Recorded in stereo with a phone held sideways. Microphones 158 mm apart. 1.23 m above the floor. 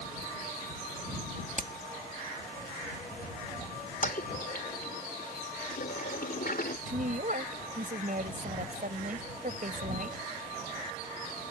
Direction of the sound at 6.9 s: 60° right (ahead or behind).